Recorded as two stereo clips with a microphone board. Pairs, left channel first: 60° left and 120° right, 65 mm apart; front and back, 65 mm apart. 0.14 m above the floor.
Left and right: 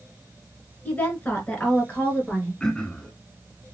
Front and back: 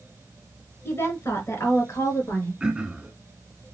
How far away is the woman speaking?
About 2 m.